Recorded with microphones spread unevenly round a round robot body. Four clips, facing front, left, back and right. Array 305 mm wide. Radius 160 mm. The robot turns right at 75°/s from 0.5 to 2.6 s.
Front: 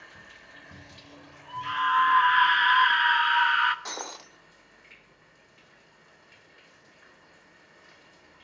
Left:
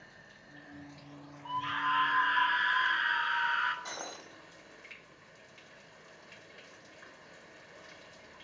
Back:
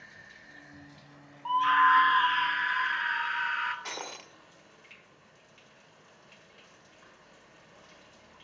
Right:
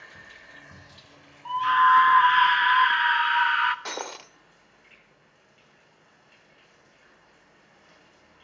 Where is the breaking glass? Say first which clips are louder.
Right 8 dB, front 2 dB; 85° right, 1.7 m.